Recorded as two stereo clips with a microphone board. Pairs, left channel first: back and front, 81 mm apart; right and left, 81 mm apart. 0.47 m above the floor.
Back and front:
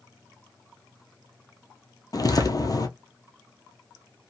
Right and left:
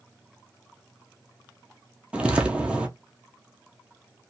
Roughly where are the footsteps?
Behind.